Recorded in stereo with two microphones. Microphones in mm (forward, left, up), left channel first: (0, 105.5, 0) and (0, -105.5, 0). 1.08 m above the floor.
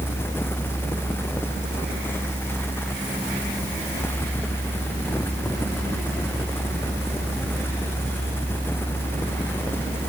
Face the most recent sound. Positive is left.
No sound to turn to.